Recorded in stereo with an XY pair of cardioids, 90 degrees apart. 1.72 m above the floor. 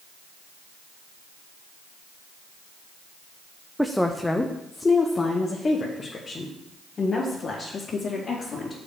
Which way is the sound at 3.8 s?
Straight ahead.